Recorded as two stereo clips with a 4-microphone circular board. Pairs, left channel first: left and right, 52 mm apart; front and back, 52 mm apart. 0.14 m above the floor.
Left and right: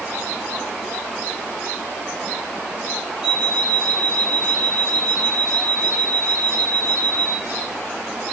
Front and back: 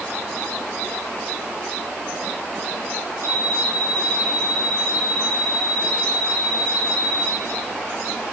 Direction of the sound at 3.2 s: 165° right.